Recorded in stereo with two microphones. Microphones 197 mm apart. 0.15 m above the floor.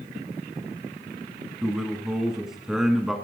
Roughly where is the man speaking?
Centre.